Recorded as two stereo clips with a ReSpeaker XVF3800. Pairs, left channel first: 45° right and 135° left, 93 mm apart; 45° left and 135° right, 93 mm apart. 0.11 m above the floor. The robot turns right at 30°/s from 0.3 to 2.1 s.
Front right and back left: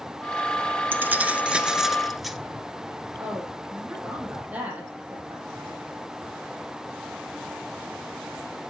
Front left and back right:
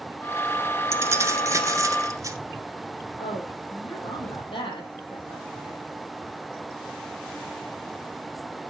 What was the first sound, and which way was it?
Keys jangling, 170° right.